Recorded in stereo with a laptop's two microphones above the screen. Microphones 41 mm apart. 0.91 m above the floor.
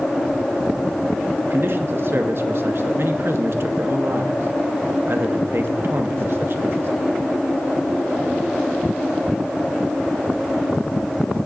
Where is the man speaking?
60° right (ahead or behind), 1.0 m.